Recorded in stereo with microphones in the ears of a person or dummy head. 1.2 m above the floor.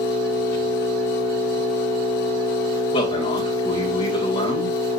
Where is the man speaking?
35° left (ahead or behind), 1.6 m.